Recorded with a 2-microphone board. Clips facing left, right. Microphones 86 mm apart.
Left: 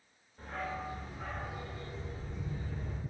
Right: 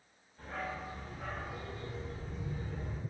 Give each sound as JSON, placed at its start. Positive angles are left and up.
{"t": 0.4, "sound": "a dog barking", "side_deg": 30, "distance_m": 1.5}